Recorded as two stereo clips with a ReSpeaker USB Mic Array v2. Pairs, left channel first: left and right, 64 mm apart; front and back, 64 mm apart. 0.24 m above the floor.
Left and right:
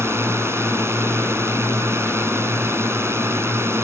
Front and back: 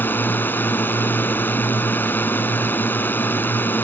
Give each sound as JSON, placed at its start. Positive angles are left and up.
{"t": 0.0, "sound": "a drone", "azimuth_deg": -50}